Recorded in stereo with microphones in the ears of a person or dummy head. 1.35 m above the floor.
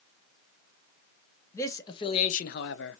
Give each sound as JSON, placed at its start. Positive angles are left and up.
{"t": 1.5, "sound": "a man speaking", "side_deg": 10, "distance_m": 1.0}